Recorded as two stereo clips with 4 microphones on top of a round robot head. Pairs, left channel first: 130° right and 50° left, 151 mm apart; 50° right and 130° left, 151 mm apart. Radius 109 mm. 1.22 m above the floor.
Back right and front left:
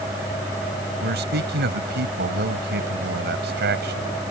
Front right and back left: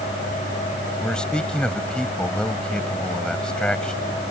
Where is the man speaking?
35° left.